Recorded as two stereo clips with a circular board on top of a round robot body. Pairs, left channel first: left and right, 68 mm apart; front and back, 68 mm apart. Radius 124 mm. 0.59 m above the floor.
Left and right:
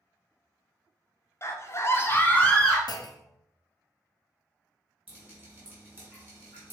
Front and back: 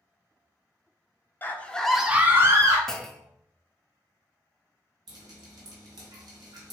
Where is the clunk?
85° left, 0.5 m.